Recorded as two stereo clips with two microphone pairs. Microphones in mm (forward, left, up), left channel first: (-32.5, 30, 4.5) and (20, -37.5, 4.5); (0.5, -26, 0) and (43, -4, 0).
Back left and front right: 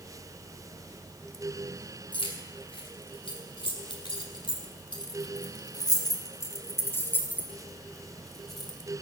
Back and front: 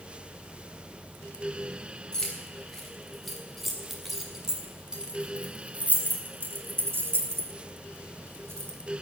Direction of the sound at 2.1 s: 130° left.